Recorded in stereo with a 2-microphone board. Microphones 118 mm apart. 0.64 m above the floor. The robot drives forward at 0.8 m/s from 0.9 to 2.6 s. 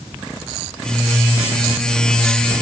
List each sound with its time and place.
Only background noise.